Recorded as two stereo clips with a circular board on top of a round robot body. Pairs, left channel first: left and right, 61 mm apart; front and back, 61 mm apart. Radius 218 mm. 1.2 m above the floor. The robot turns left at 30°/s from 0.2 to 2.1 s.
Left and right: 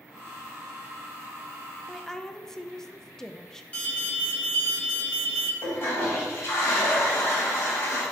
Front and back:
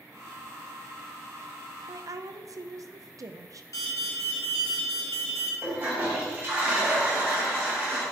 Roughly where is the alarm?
Ahead left.